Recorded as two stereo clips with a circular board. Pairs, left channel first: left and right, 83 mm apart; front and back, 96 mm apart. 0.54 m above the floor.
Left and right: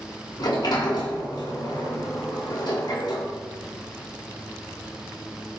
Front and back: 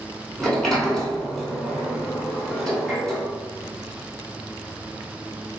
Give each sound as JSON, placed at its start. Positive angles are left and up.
{"t": 0.4, "sound": "a sliding door", "azimuth_deg": 85, "distance_m": 2.0}